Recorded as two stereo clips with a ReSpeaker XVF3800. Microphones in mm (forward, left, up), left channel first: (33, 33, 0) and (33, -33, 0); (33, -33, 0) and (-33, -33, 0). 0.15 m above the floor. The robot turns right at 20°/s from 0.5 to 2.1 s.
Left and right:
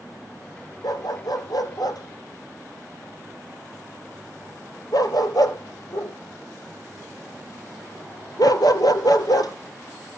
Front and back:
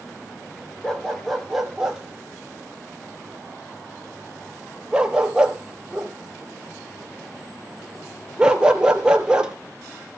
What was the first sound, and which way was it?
A dog barking, 75° left.